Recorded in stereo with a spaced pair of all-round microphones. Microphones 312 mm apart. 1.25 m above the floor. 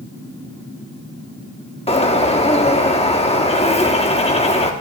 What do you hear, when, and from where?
1.9 s a bird: 20° left (ahead or behind), 1.0 m